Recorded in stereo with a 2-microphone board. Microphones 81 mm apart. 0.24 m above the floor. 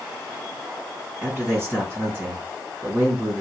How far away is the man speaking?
About 2.5 m.